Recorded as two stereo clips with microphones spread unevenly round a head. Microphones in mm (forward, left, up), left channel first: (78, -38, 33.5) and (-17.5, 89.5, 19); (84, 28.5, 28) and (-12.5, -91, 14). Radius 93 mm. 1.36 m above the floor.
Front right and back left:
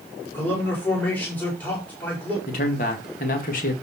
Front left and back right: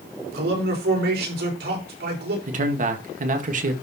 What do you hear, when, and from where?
0.3 s a man speaking: 135° right, 5 m
2.5 s a man speaking: 100° right, 2.0 m